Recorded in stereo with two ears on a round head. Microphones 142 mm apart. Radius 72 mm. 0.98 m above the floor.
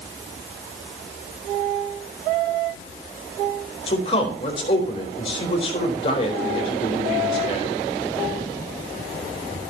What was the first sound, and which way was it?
A man speaking, 35° left (ahead or behind).